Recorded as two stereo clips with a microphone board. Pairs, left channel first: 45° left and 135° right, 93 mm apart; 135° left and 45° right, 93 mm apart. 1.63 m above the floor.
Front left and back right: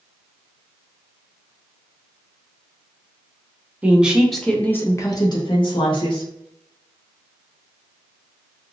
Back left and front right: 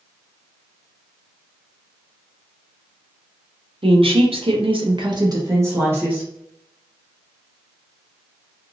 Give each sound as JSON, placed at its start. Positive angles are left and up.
{"t": 3.8, "sound": "a woman speaking", "azimuth_deg": -60, "distance_m": 0.8}